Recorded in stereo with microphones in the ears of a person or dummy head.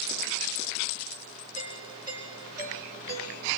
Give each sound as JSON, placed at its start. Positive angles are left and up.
{"t": 1.6, "sound": "a doorbell", "side_deg": -15, "distance_m": 7.5}